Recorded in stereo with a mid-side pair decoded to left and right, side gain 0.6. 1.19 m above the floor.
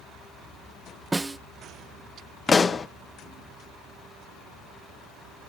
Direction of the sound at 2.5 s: 25° left.